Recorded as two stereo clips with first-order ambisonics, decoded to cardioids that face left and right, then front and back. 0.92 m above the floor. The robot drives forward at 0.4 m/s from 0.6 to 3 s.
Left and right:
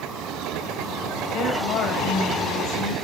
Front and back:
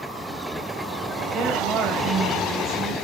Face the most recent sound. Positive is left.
turn(degrees=130)